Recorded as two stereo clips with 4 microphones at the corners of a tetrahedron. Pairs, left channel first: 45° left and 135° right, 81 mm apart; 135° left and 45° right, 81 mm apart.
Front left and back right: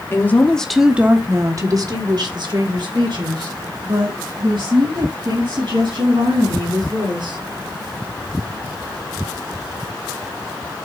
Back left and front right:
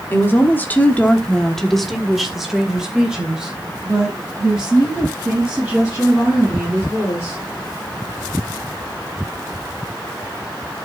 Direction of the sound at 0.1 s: 85° left.